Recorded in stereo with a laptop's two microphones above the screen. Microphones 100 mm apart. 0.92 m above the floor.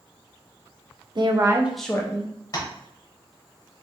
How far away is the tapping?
About 0.9 m.